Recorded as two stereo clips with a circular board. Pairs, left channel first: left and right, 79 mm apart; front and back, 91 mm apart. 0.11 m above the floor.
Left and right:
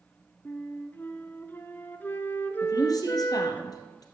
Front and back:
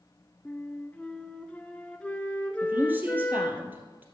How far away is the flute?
About 0.7 m.